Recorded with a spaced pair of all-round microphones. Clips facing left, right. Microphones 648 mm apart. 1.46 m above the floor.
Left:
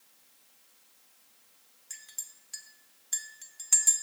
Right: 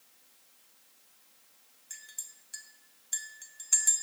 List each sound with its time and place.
1.9 s a clink: 30° left (ahead or behind), 0.5 m